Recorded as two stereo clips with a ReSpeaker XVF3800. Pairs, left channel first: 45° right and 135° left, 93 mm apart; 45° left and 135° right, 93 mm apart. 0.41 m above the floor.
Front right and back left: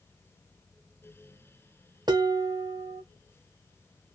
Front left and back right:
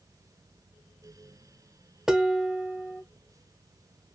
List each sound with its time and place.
2.1 s dishes clattering: 145° left, 0.6 m